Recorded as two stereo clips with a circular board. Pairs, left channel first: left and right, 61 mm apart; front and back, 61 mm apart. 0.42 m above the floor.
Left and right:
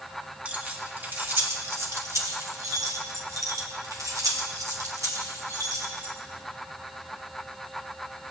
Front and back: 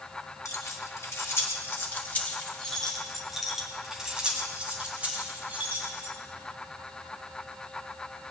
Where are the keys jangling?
25° right, 1.9 m; by 6.1 s 120° right, 3 m.